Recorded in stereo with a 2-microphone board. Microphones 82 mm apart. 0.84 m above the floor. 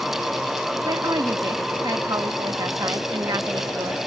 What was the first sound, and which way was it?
A woman speaking, 50° right (ahead or behind).